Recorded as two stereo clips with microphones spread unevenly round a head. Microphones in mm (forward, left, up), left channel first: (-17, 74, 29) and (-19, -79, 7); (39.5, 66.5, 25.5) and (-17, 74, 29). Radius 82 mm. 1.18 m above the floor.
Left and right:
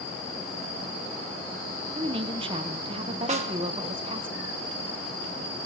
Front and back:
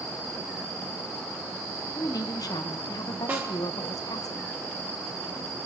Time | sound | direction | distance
1.9 | a woman speaking | 35° right | 0.7 m
3.3 | a snare drum | 125° right | 1.4 m